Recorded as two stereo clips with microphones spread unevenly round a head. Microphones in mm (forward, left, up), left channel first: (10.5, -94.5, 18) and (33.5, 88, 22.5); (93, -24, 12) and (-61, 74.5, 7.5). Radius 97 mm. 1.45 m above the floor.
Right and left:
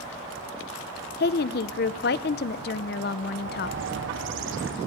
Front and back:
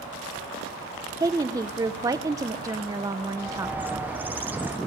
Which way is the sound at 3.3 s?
65° left.